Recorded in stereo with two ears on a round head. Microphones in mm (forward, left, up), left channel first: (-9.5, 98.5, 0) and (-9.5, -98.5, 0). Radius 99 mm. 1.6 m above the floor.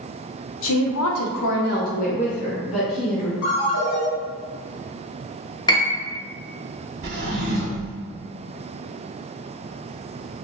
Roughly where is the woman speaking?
Left.